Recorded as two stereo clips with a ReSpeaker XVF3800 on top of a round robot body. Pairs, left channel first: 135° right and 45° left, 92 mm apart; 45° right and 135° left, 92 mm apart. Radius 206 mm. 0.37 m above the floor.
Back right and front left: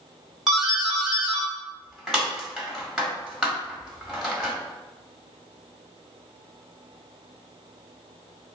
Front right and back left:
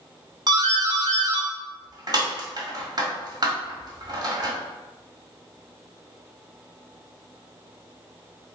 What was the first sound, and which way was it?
A doorbell, 125° left.